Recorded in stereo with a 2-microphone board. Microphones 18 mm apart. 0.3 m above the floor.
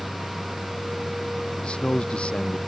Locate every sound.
1.6 s a man speaking: 80° left